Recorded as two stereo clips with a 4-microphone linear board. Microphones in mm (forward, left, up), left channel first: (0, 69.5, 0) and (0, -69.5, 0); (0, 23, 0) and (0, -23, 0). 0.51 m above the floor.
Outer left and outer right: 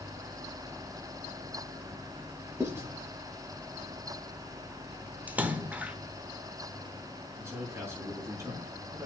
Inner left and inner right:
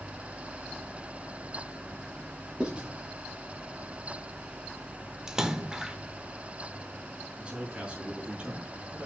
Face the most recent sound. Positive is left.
turn(degrees=-20)  # may be behind; listen again after turning